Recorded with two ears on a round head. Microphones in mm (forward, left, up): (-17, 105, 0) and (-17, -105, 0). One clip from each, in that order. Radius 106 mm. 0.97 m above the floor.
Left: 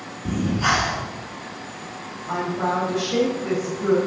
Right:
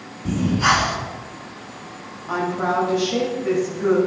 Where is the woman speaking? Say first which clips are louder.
Right 2 dB; centre (ahead or behind), 6.5 m.